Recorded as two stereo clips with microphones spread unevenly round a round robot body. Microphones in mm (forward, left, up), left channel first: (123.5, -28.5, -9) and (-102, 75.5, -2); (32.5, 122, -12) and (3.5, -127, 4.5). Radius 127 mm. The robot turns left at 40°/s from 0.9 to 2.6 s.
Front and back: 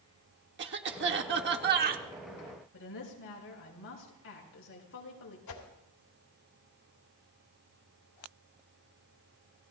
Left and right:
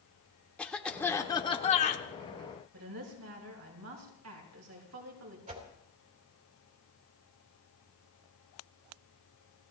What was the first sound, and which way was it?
A cough, 165° left.